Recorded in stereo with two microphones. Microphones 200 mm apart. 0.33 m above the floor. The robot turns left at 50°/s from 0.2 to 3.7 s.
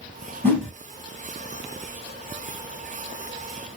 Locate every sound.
0.4 s a whoosh: 10° left (ahead or behind), 1.3 m; by 0.7 s centre (ahead or behind), 1.3 m